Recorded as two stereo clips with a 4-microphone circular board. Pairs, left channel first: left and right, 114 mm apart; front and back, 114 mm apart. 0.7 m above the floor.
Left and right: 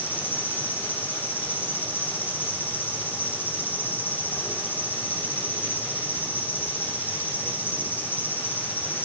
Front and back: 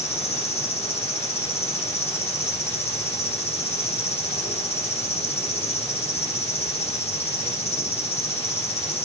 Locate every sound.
0.0 s an insect: 20° left, 2 m